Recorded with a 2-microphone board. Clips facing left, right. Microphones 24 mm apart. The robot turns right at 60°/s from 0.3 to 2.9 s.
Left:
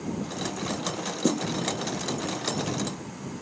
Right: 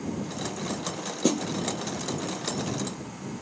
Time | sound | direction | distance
1.2 | a snare drum | 40° right (ahead or behind) | ?